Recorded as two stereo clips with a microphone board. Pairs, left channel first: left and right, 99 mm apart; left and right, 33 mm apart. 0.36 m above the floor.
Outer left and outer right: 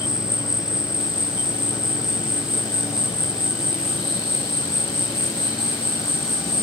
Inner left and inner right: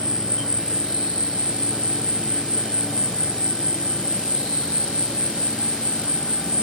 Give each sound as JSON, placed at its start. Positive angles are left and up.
{"t": 0.0, "sound": "an insect", "side_deg": 50}